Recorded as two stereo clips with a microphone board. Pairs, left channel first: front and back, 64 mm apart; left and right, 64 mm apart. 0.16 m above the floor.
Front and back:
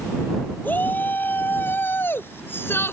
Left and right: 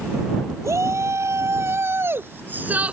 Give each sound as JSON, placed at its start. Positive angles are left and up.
{"t": 0.6, "sound": "a shout", "azimuth_deg": -60}